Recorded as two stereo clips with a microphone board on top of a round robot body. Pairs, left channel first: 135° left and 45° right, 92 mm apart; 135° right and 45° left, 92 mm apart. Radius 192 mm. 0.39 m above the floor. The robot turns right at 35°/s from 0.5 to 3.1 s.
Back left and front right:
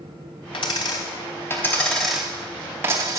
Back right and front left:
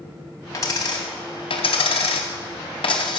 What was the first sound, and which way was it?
A dropped coin, 170° left.